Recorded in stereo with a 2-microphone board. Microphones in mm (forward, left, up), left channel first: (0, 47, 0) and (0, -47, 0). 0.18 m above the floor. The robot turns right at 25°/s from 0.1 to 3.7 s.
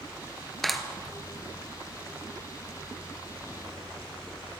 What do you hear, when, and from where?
0.6 s a clap: centre (ahead or behind), 2.5 m; by 0.8 s 5° right (ahead or behind), 2.5 m